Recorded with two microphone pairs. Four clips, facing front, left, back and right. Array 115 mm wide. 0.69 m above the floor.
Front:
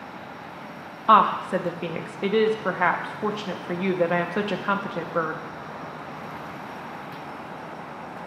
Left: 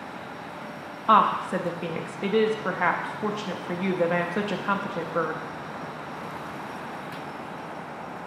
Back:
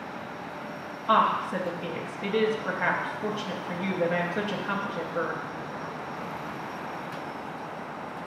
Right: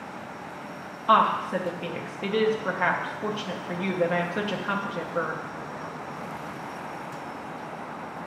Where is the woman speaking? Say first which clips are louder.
Left 1 dB, front 5 dB; 25° left, 0.5 m.